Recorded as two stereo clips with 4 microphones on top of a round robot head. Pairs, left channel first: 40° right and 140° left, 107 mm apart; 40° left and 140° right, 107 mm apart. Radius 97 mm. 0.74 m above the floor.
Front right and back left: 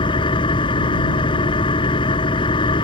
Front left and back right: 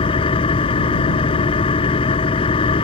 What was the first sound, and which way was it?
An engine running, 5° left.